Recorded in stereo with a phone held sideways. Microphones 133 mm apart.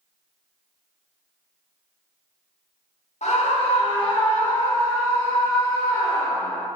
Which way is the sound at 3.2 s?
55° left (ahead or behind).